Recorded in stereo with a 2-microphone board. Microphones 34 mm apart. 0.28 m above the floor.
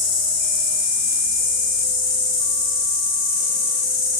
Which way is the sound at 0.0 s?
5° left (ahead or behind).